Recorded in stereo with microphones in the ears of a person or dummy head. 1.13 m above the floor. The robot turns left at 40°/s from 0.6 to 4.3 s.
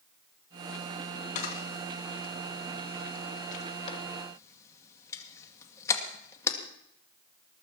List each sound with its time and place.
1.4 s a camera shutter: 35° left (ahead or behind), 1.9 m; by 6.6 s 20° left (ahead or behind), 1.9 m